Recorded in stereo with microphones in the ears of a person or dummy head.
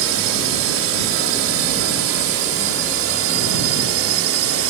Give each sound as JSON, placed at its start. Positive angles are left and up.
{"t": 0.0, "sound": "a drone", "side_deg": -65}